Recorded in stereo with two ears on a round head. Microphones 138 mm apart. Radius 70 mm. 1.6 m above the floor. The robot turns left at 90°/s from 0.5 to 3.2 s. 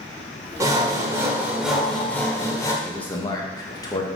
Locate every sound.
0.6 s sawing: 20° right (ahead or behind), 1.3 m; by 2.7 s 20° left (ahead or behind), 1.3 m
2.8 s a man speaking: 175° right, 1.4 m; by 4.1 s 155° left, 1.4 m